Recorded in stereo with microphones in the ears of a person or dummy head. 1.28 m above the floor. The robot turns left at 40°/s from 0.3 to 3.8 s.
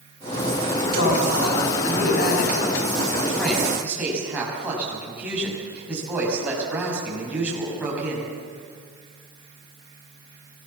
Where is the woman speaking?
105° left, 7.5 m; by 8.3 s 10° right, 7.5 m.